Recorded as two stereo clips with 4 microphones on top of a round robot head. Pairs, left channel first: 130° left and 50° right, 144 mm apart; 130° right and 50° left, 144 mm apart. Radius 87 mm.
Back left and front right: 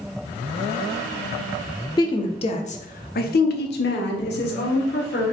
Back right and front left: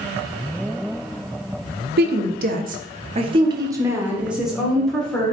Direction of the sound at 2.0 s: 65° left.